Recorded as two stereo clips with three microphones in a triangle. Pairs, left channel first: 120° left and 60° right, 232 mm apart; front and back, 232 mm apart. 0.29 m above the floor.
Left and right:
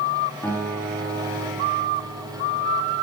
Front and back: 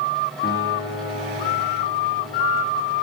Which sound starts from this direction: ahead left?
A guitar, at 0.4 s.